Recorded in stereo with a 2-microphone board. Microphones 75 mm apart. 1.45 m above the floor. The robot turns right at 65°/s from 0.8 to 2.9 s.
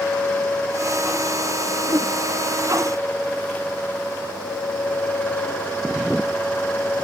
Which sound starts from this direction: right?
A whoosh, at 1.9 s.